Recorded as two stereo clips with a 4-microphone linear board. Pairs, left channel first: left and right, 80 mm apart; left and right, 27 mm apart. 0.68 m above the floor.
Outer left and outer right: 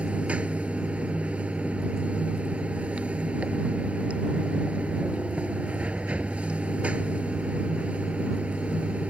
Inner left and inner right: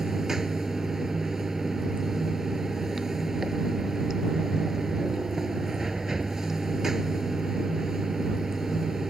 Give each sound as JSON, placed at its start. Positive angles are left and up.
{"t": 0.0, "sound": "running water", "side_deg": -15}